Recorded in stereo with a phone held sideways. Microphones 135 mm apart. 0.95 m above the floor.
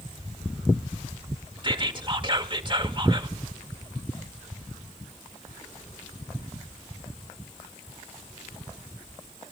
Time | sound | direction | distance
1.6 | whispering | 35° right (ahead or behind) | 1.8 m